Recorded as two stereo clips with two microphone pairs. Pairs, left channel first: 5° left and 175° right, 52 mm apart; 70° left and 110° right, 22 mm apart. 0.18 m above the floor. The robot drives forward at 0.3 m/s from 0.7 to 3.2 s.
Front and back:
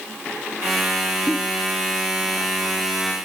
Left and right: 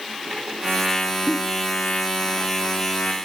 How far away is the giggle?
About 0.6 m.